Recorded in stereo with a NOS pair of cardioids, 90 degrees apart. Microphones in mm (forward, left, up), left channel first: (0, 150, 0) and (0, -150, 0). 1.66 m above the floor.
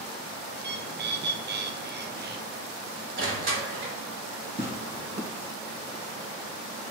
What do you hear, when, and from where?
0.6 s a bird: 35° right, 1.1 m
3.2 s crushing: 45° right, 3 m
4.6 s tearing paper: 20° right, 1.7 m